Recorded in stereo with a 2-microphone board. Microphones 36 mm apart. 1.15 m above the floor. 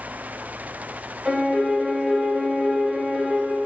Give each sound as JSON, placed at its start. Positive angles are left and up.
{"t": 1.2, "sound": "a piano", "side_deg": 5, "distance_m": 0.8}